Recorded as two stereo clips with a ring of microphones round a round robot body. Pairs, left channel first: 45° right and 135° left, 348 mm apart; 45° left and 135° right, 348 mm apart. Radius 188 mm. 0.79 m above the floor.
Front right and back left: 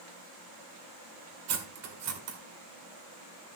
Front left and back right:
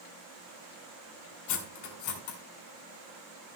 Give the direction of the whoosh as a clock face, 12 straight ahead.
No whoosh in this recording.